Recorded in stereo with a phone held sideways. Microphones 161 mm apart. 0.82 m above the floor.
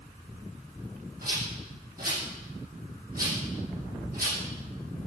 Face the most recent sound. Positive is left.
turn(degrees=-65)  # may be behind; listen again after turning